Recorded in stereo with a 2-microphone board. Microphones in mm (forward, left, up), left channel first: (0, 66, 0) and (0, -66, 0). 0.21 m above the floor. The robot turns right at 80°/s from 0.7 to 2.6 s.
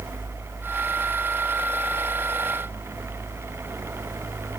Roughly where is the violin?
No violin in this recording.